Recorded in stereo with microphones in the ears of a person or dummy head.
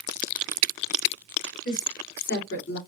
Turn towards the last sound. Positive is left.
turn(degrees=65)  # may be behind; listen again after turning